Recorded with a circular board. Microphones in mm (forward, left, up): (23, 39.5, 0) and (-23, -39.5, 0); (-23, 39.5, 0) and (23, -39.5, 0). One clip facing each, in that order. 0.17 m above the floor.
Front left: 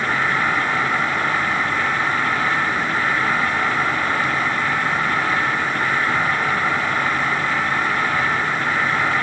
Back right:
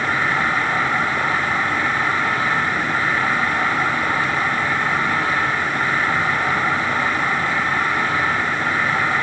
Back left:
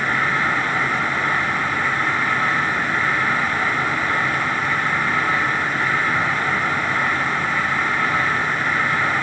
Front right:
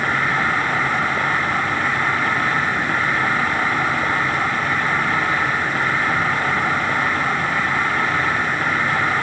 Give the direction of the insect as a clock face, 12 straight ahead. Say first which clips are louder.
Even, front right 1 dB; 2 o'clock.